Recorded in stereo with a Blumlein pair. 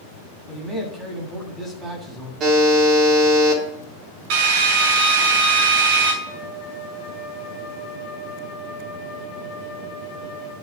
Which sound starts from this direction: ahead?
A man speaking, at 0.5 s.